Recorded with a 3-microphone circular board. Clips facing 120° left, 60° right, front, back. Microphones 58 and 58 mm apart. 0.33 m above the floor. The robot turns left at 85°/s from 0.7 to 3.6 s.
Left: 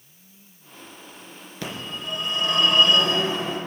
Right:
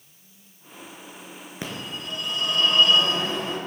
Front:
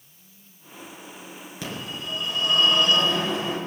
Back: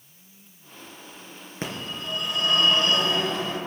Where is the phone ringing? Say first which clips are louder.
Left 1 dB, back 1 dB; 125° right, 3 m; by 3.6 s 65° left, 3 m.